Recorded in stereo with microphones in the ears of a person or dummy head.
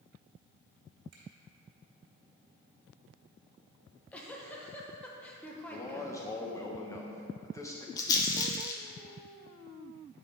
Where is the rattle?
20° left (ahead or behind), 0.7 m.